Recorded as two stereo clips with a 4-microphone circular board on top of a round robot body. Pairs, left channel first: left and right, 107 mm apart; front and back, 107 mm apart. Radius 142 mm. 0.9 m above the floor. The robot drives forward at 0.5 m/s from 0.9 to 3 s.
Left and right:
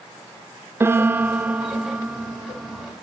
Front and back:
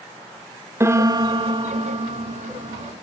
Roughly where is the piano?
Behind right.